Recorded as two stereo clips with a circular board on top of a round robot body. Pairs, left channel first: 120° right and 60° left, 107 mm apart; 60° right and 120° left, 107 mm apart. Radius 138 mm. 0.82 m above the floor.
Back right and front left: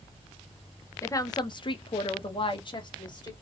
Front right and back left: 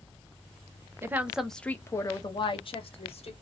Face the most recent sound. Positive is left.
turn(degrees=-75)